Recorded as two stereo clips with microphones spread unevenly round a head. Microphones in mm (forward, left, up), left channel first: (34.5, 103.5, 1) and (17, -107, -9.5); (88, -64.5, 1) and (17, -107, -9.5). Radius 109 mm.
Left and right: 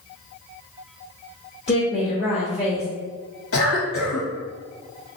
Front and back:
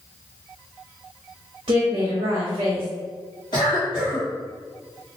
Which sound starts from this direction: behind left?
A woman speaking, at 1.7 s.